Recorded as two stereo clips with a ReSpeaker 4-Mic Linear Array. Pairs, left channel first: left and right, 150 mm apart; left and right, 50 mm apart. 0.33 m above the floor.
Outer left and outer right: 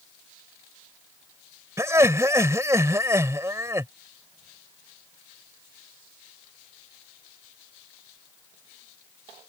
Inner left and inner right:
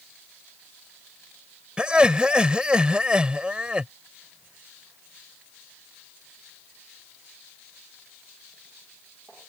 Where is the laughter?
20° right (ahead or behind).